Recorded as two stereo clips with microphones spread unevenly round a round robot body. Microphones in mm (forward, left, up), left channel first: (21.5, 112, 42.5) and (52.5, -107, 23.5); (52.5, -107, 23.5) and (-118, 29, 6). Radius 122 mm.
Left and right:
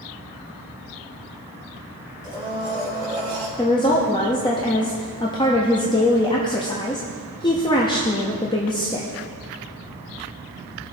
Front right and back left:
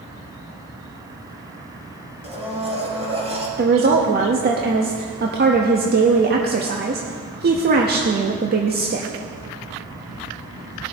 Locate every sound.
2.2 s a blender: 155° right, 3 m
3.6 s a woman speaking: 170° left, 1.0 m